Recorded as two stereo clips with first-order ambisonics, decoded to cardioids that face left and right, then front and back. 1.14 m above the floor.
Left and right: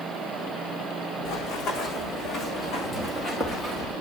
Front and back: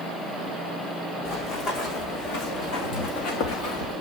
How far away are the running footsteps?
About 3.5 m.